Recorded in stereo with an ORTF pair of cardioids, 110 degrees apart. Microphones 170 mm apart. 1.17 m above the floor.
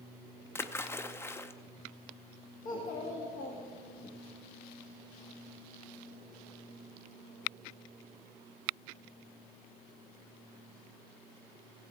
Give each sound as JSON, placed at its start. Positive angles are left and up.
{"t": 0.6, "sound": "a splash", "azimuth_deg": 15, "distance_m": 0.5}
{"t": 2.6, "sound": "a child speaking", "azimuth_deg": 55, "distance_m": 1.5}